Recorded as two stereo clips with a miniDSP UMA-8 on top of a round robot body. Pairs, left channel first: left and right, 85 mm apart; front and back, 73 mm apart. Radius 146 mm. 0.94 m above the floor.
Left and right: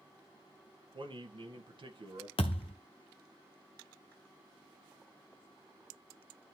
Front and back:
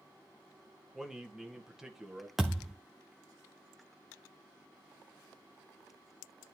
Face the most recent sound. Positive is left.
turn(degrees=95)